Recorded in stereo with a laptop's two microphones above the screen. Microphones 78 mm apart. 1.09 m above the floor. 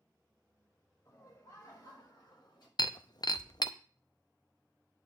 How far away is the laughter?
About 5.5 m.